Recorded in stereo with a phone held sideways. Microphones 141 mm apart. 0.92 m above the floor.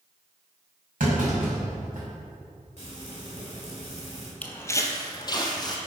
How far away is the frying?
About 2.5 m.